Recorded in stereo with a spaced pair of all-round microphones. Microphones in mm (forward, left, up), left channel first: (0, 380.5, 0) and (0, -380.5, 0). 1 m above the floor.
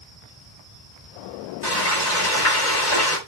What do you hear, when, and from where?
1.6 s frying: 80° left, 6 m